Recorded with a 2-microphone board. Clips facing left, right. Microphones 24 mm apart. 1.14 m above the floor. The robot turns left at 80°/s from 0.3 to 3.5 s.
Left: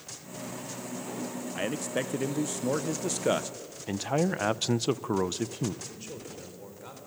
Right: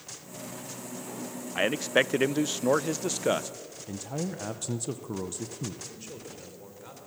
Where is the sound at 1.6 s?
35° right, 0.6 m; by 3.5 s 170° left, 0.6 m.